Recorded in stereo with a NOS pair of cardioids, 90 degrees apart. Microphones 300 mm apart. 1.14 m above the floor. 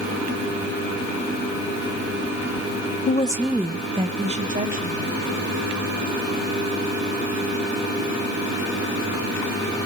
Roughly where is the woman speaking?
Ahead left.